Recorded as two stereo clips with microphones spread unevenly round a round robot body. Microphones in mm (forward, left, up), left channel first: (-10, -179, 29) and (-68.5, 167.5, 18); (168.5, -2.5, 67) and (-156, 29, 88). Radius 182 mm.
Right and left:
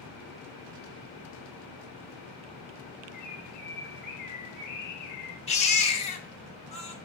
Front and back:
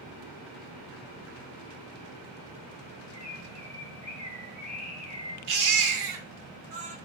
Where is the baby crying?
150° right, 1.0 m.